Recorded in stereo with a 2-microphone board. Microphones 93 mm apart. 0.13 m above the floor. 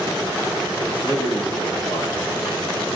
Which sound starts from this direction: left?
A man speaking, at 0.8 s.